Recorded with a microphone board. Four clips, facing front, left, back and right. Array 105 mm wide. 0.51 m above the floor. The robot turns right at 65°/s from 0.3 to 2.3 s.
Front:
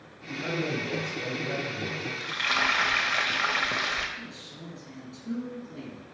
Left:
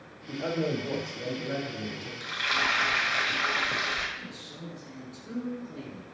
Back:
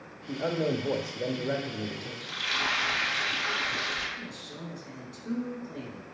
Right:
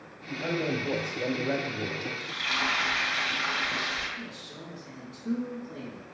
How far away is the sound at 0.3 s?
About 1.3 m.